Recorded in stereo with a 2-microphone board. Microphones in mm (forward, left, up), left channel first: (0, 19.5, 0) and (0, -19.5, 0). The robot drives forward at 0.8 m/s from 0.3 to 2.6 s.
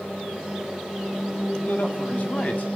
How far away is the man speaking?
About 2 m.